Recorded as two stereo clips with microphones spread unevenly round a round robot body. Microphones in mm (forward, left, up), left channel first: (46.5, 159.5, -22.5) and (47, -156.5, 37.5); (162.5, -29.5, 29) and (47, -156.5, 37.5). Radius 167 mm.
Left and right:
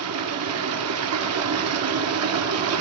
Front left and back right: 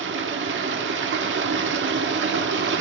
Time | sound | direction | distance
0.0 | running water | 140° right | 1.4 m